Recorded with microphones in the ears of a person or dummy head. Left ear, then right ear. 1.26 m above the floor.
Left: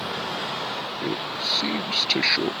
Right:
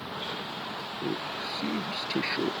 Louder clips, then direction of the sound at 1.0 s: Left 5 dB; 45° left (ahead or behind).